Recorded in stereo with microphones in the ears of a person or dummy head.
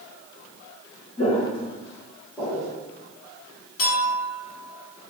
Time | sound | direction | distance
1.2 | footsteps | 25° left (ahead or behind) | 1.8 m
3.8 | a clink | 70° left (ahead or behind) | 1.8 m